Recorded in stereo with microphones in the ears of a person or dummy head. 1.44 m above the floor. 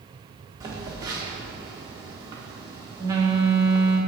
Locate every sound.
0.6 s a phone buzzing: 20° right (ahead or behind), 1.3 m